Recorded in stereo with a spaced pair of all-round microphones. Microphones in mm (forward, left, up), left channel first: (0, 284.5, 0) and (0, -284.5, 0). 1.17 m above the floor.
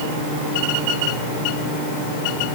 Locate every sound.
Only background noise.